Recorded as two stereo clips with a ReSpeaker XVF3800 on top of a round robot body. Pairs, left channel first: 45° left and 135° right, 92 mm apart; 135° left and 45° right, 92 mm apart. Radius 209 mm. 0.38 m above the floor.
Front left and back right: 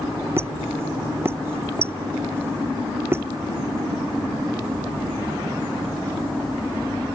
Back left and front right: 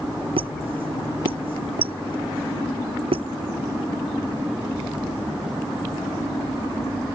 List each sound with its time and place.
0.4 s a squeak: 70° right